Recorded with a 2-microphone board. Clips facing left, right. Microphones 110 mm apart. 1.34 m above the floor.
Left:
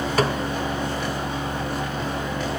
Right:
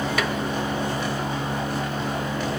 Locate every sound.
0.2 s a snare drum: 40° left (ahead or behind), 1.5 m